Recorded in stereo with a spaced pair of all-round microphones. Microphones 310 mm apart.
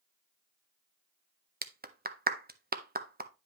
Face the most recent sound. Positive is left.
turn(degrees=-30)  # may be behind; listen again after turning